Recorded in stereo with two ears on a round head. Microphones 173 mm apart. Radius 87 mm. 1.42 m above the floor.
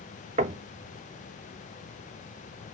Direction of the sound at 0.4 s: 35° right (ahead or behind).